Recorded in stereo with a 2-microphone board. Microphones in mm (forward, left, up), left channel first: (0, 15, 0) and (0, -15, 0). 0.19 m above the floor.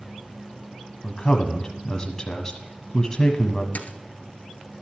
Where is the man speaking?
25° left (ahead or behind), 1.1 m.